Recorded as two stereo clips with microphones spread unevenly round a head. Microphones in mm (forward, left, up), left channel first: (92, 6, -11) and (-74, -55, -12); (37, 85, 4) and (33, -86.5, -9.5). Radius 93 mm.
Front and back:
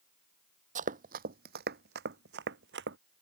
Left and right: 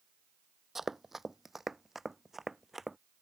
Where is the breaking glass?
I don't hear breaking glass.